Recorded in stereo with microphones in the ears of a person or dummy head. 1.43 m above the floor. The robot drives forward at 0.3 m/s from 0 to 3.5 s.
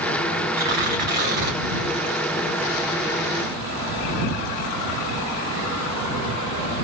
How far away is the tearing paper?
About 2.5 m.